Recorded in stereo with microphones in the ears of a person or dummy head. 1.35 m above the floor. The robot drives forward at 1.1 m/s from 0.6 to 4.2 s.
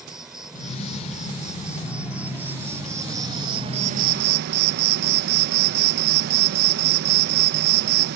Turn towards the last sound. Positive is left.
turn(degrees=-65)  # may be behind; listen again after turning